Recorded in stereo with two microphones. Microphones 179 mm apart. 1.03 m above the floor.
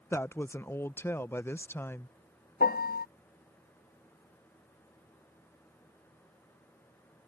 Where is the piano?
60° left (ahead or behind).